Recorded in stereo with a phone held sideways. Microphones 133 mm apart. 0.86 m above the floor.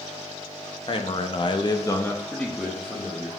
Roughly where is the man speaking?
Left.